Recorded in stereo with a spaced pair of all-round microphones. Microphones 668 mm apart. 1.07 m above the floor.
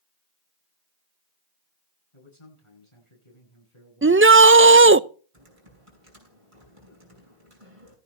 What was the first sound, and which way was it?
A man speaking, 50° left (ahead or behind).